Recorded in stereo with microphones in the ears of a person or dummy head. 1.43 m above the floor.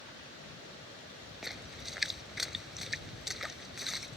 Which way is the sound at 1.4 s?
Centre (ahead or behind).